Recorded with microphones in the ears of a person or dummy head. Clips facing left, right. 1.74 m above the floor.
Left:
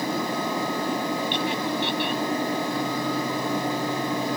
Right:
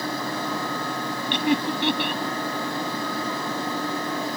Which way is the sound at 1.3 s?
60° right (ahead or behind).